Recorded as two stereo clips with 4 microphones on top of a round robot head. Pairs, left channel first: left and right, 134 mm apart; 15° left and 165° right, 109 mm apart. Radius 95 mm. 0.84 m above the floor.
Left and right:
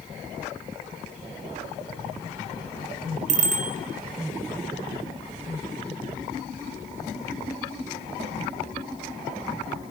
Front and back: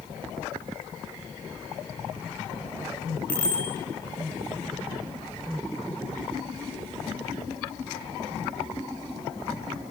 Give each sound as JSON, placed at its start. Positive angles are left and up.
{"t": 3.3, "sound": "a bicycle bell", "azimuth_deg": -65, "distance_m": 2.5}